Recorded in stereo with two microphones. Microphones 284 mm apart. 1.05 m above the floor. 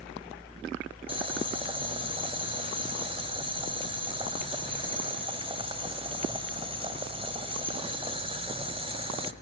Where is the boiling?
20° right (ahead or behind), 1.5 m.